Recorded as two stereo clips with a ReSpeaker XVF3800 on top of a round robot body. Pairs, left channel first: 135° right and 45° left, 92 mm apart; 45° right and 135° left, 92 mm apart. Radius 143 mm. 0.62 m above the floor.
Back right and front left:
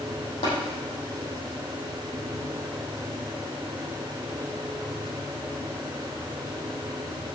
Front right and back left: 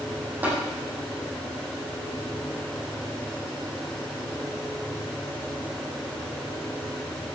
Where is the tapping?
155° right, 5 m.